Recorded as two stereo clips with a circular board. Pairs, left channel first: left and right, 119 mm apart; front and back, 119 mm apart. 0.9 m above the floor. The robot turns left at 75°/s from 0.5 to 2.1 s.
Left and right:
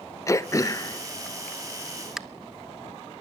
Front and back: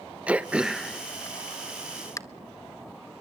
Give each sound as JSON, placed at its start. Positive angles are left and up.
{"t": 0.3, "sound": "throat clearing", "azimuth_deg": 110, "distance_m": 0.8}